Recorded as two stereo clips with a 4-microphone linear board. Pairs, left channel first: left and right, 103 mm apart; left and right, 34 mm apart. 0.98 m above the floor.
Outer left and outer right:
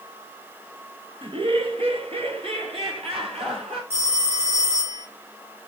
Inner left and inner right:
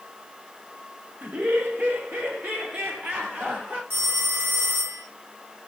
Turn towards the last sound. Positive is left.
turn(degrees=-75)  # may be behind; listen again after turning